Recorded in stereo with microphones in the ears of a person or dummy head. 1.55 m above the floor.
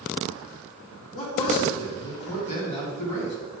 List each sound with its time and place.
1.1 s a man speaking: 40° left (ahead or behind), 3.5 m